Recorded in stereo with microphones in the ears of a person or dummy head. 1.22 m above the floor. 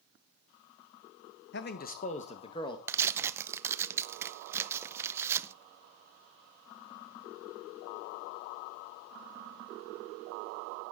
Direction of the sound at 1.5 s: 55° left (ahead or behind).